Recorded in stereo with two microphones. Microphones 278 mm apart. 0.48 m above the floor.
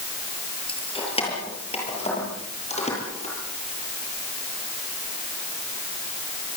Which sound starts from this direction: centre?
Keys jangling, at 0.7 s.